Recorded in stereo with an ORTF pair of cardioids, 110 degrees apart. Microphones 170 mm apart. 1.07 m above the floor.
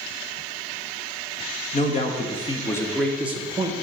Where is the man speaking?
45° left, 1.3 m; by 3.7 s 30° right, 0.9 m.